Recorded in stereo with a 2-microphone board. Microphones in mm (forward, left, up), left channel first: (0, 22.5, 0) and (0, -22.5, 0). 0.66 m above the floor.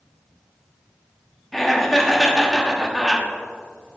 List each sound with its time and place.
1.5 s laughter: centre (ahead or behind), 1.5 m